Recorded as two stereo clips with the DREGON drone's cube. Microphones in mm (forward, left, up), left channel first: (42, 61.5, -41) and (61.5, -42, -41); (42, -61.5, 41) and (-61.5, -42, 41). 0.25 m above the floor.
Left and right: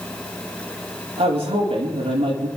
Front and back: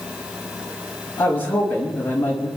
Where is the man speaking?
80° right, 5.5 m.